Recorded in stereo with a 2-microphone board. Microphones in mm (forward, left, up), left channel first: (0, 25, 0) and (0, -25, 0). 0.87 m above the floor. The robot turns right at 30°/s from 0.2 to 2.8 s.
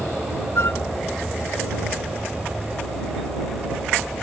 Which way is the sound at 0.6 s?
55° left (ahead or behind).